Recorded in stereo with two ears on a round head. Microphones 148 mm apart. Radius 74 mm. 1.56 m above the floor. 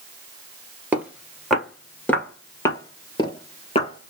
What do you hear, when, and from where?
0.9 s footsteps: 10° right (ahead or behind), 1.7 m; by 4.1 s 35° left (ahead or behind), 2 m